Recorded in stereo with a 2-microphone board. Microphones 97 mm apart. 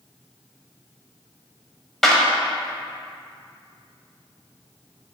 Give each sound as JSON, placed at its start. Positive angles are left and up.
{"t": 2.0, "sound": "a clap", "side_deg": 0, "distance_m": 1.1}